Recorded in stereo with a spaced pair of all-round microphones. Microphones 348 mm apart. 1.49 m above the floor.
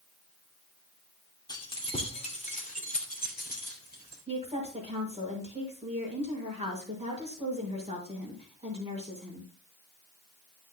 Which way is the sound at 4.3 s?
15° right (ahead or behind).